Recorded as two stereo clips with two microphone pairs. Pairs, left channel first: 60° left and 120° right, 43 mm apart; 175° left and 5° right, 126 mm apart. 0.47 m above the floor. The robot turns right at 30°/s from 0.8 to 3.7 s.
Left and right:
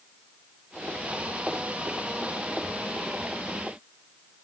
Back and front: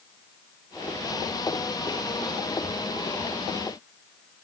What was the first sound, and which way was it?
Only background noise.